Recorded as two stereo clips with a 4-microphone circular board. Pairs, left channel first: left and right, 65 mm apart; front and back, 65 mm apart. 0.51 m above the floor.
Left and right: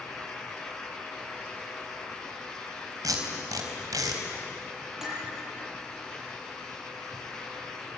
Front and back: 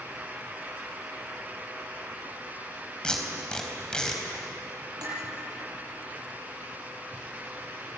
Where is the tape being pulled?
75° right, 4 m.